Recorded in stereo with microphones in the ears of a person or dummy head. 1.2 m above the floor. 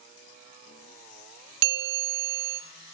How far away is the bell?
About 1.0 m.